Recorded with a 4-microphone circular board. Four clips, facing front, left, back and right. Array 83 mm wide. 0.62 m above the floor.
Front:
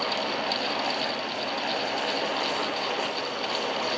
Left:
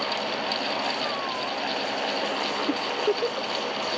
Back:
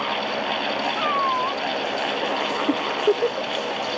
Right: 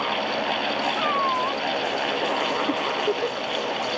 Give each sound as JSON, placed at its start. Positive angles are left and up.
{"t": 1.0, "sound": "a cat meowing", "azimuth_deg": -150}
{"t": 2.7, "sound": "a giggle", "azimuth_deg": 175}